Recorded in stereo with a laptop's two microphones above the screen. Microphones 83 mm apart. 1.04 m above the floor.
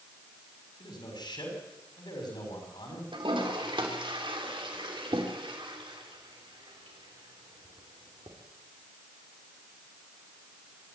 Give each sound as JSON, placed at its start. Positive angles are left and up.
{"t": 0.8, "sound": "a man speaking", "side_deg": 60, "distance_m": 6.0}
{"t": 3.1, "sound": "a toilet flushing", "side_deg": -75, "distance_m": 3.5}